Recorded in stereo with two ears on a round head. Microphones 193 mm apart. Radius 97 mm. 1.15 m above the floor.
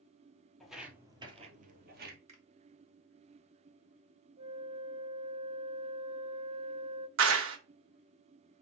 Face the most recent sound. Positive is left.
turn(degrees=-65)  # may be behind; listen again after turning